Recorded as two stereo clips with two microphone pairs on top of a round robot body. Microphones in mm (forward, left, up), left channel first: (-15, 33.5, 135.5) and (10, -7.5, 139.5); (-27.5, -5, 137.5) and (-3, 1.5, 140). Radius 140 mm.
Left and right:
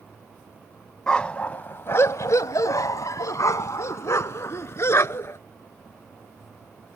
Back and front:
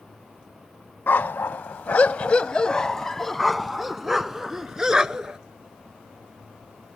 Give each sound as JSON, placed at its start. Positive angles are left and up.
{"t": 1.1, "sound": "a dog barking", "azimuth_deg": -160}